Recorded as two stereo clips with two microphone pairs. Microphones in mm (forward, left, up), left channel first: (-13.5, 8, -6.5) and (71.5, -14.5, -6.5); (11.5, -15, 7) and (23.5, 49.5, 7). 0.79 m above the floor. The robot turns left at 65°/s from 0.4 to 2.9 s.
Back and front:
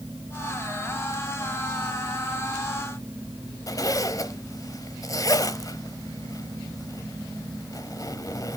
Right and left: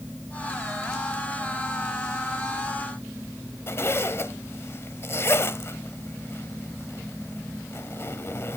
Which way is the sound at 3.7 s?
150° right.